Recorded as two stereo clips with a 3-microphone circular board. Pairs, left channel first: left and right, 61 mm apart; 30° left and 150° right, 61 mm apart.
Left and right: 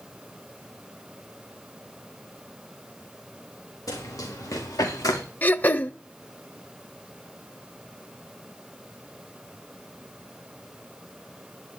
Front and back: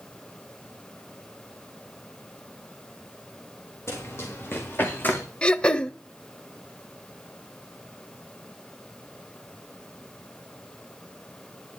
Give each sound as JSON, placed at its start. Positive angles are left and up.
{"t": 3.9, "sound": "running footsteps", "azimuth_deg": 70, "distance_m": 4.5}
{"t": 5.4, "sound": "throat clearing", "azimuth_deg": 85, "distance_m": 0.7}